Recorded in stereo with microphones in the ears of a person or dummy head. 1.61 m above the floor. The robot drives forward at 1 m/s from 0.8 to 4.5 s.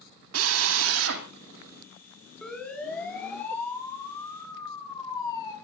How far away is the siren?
About 5 m.